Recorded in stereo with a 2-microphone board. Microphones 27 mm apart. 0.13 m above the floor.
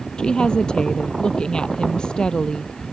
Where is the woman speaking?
35° left (ahead or behind).